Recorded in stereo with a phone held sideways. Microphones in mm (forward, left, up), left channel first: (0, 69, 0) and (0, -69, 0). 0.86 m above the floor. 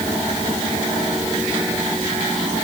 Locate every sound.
Only background noise.